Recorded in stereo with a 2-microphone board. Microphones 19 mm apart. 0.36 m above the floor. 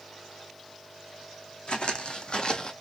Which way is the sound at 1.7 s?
70° left (ahead or behind).